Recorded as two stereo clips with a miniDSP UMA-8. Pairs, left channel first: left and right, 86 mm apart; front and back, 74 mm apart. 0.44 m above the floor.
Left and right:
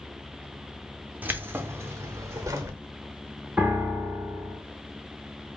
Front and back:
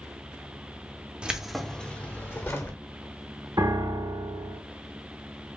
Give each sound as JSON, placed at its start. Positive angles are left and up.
{"t": 1.2, "sound": "keys jangling", "azimuth_deg": -120, "distance_m": 0.6}
{"t": 3.6, "sound": "a piano", "azimuth_deg": -160, "distance_m": 1.7}